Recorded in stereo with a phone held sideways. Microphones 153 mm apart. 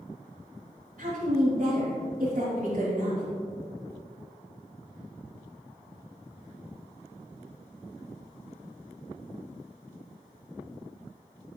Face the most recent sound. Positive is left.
turn(degrees=-85)